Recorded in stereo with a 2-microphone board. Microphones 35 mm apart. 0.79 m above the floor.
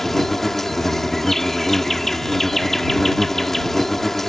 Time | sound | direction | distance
0.0 | an insect | 5° left (ahead or behind) | ?